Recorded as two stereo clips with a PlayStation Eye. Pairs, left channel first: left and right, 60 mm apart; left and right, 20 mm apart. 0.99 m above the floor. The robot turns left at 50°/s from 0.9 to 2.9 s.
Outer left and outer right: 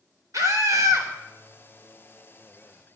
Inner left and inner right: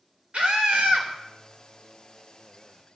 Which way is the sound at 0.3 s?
70° right (ahead or behind).